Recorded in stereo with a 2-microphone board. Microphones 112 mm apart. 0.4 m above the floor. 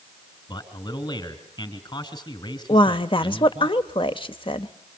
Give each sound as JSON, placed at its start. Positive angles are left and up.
{"t": 0.5, "sound": "a man speaking", "side_deg": 40, "distance_m": 3.0}
{"t": 2.7, "sound": "a woman speaking", "side_deg": 50, "distance_m": 1.2}